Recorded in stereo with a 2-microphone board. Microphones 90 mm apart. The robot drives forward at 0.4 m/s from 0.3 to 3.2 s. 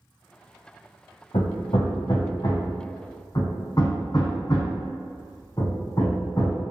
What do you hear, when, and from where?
1.3 s hammering: 70° left (ahead or behind), 0.6 m; by 6.6 s 35° left (ahead or behind), 1.0 m